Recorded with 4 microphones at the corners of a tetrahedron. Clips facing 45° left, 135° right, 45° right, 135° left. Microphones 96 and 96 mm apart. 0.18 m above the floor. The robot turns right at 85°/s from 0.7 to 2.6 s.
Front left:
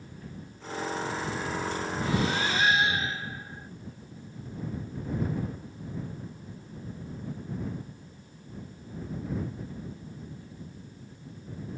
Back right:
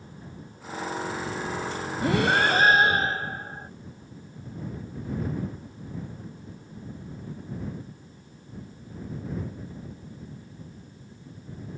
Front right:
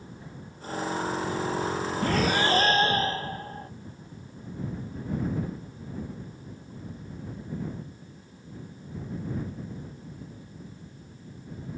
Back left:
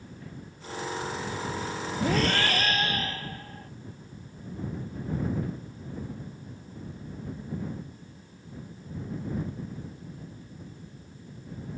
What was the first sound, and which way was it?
Breathing, 150° right.